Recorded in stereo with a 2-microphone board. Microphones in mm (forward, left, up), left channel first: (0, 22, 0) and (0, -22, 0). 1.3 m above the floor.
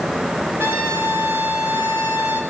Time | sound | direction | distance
0.6 | a trumpet | 50° right (ahead or behind) | 5 m